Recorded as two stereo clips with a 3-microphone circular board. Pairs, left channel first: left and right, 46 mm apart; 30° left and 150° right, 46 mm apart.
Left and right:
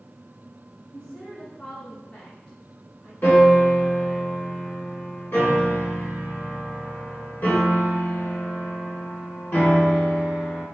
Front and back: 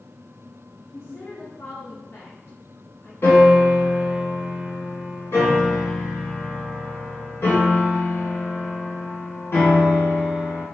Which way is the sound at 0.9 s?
30° left.